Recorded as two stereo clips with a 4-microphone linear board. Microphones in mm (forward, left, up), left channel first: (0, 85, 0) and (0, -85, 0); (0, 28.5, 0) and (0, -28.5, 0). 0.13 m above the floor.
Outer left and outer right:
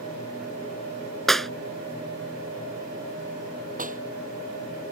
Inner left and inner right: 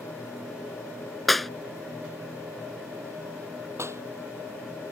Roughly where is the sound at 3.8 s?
Right.